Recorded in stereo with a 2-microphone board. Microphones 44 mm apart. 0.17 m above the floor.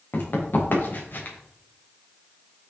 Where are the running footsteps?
50° left (ahead or behind), 5 m; by 1.4 s 45° left (ahead or behind), 4.5 m.